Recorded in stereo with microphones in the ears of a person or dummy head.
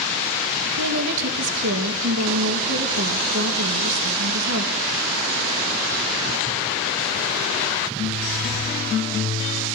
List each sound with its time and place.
0.7 s a woman speaking: 65° right (ahead or behind), 3 m